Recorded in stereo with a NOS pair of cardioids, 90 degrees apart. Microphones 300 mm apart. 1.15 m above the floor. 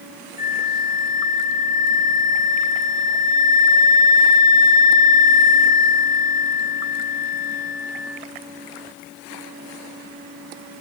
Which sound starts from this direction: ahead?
A flute, at 0.4 s.